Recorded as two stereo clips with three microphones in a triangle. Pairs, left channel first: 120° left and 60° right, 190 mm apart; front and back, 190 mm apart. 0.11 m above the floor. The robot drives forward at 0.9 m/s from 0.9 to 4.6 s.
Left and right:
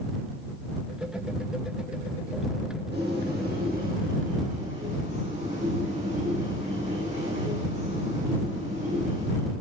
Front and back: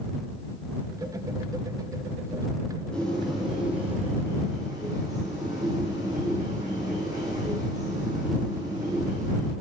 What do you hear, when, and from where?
2.9 s a bird: 85° right, 3.5 m; by 9.5 s 110° right, 4 m